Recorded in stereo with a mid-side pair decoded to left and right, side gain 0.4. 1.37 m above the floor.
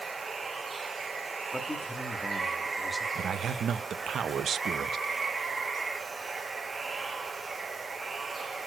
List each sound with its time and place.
0.0 s running water: 35° right, 1.1 m
1.5 s a man speaking: 10° left, 1.8 m
3.1 s a man speaking: 60° right, 0.5 m